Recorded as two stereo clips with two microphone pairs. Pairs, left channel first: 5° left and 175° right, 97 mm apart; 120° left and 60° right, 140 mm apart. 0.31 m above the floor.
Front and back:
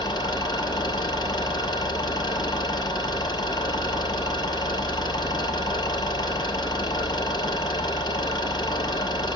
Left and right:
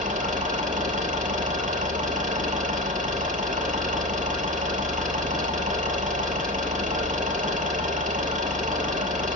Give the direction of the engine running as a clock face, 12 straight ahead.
1 o'clock.